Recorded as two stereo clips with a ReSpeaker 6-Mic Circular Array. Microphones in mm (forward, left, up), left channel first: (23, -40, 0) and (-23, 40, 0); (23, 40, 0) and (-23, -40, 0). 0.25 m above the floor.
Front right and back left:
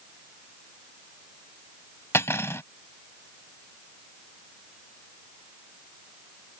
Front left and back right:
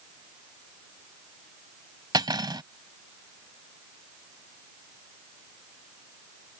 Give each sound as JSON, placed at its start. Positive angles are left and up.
{"t": 2.1, "sound": "cutlery clinking", "azimuth_deg": -115}